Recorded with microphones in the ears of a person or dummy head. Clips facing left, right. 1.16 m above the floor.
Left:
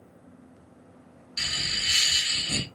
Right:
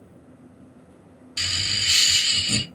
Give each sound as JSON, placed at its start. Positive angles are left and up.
{"t": 1.4, "sound": "laughter", "side_deg": -40, "distance_m": 1.3}